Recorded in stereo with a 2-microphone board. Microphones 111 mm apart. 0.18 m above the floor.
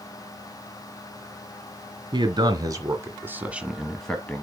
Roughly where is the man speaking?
Right.